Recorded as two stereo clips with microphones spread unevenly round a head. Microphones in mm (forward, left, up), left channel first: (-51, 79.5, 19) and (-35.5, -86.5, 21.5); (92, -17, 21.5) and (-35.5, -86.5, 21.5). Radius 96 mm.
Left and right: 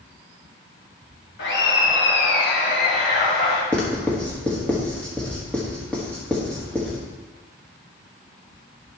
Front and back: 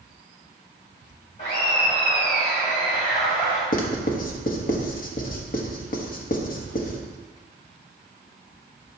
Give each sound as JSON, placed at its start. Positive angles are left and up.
{"t": 1.4, "sound": "laughter", "azimuth_deg": 90, "distance_m": 2.5}
{"t": 3.7, "sound": "writing", "azimuth_deg": 10, "distance_m": 1.2}